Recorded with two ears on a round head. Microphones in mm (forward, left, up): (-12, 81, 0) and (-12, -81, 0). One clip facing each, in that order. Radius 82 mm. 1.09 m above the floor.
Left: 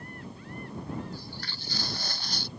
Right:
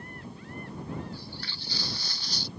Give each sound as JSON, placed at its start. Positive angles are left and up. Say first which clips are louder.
{"t": 1.1, "sound": "footsteps", "louder": "even", "side_deg": 40}